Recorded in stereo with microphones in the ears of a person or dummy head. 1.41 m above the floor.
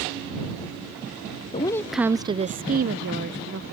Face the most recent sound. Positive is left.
turn(degrees=-60)  # may be behind; listen again after turning